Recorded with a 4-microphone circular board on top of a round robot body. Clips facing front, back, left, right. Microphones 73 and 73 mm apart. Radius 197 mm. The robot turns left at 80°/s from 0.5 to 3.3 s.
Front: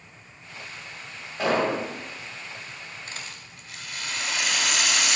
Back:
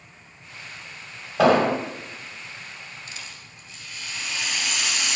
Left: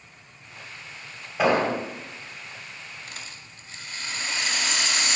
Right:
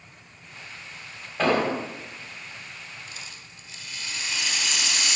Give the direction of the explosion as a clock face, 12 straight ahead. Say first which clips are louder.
Back 6 dB, left 1 dB; 6 o'clock.